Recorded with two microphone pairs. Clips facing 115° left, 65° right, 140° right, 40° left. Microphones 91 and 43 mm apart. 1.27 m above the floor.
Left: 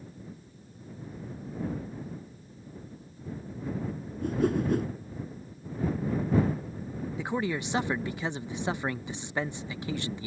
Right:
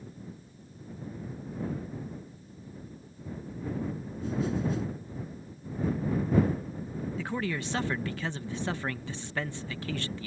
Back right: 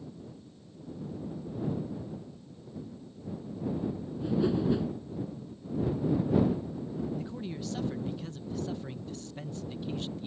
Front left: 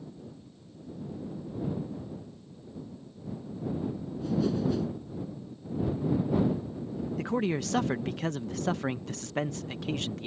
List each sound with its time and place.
4.2 s a whoosh: 150° left
7.2 s a man speaking: 40° left